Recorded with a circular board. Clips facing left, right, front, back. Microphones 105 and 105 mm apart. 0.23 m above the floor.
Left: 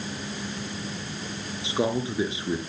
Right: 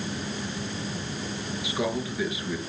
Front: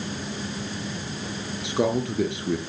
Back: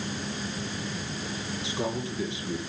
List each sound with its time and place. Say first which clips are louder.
1.6 s a man speaking: left 4 dB, front 9 dB; 30° left, 3.5 m